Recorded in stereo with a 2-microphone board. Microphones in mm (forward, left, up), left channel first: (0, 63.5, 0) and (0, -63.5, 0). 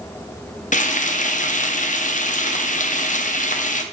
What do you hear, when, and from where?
0.7 s frying: 80° left, 0.6 m